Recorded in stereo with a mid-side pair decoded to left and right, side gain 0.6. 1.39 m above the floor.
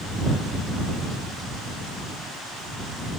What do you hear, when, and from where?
Only background noise.